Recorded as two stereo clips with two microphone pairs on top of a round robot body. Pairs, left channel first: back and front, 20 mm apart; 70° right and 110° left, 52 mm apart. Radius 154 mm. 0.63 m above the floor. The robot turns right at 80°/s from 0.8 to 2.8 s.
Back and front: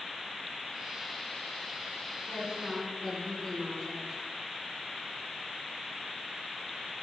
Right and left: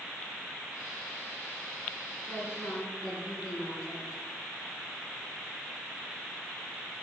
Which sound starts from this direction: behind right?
A woman speaking, at 2.3 s.